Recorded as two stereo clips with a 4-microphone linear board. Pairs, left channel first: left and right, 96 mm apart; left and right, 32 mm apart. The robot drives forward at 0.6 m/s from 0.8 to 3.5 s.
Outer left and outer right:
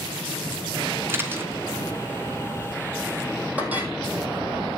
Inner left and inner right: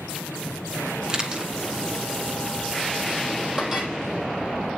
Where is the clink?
15° right (ahead or behind), 3.5 m.